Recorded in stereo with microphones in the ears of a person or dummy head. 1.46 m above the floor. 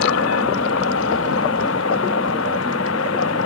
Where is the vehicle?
70° left (ahead or behind).